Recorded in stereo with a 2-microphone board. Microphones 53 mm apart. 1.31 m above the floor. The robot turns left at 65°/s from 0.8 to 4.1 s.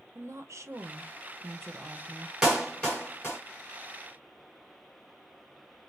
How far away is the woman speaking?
About 0.8 m.